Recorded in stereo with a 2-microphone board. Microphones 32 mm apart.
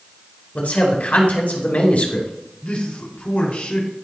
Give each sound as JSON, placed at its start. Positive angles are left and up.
{"t": 0.6, "sound": "a man speaking", "side_deg": 55, "distance_m": 3.5}
{"t": 2.6, "sound": "a man speaking", "side_deg": 60, "distance_m": 3.0}